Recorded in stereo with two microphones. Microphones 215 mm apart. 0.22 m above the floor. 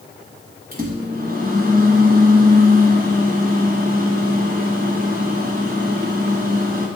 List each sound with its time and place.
0.7 s a microwave: 40° right (ahead or behind), 1.7 m